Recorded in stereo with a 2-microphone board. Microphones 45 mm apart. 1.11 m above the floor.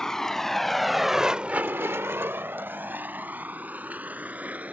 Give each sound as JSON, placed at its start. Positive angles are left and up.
{"t": 0.0, "sound": "a vehicle", "side_deg": 10}